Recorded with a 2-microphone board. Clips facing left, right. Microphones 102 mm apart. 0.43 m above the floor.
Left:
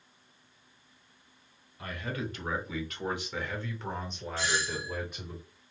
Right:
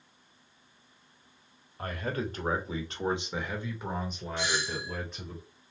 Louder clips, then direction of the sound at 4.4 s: Even; 20° right (ahead or behind).